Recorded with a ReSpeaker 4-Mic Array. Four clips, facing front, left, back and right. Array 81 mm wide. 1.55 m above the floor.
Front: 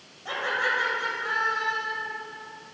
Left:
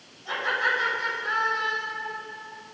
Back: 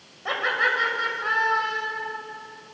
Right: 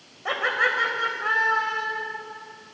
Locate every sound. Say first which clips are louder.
0.2 s laughter: right 2 dB, back 3 dB; 115° right, 7 m; by 2.0 s 105° right, 7.5 m